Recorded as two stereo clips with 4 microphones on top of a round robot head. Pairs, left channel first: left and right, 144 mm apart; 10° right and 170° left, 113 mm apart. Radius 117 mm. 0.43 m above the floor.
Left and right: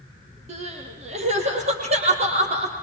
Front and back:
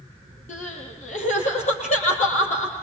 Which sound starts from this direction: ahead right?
Crying, at 0.5 s.